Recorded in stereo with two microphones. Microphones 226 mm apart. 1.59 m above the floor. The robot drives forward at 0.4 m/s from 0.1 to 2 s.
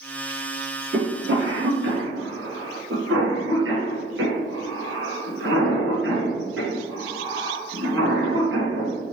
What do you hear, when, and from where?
0.9 s a cough: 50° right (ahead or behind), 1.6 m; by 8.9 s 60° right (ahead or behind), 1.3 m